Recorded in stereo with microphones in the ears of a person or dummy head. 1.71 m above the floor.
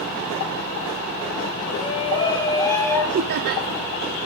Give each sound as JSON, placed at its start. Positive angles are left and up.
{"t": 1.7, "sound": "a shout", "side_deg": 35, "distance_m": 1.7}
{"t": 3.1, "sound": "laughter", "side_deg": -50, "distance_m": 0.7}